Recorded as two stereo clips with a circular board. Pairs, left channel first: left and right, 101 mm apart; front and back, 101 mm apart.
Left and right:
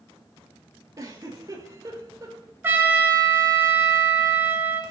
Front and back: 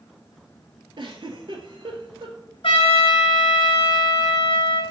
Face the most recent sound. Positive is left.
turn(degrees=-20)